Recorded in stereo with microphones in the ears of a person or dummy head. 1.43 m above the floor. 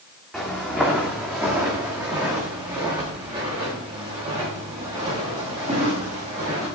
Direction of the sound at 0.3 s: Centre (ahead or behind).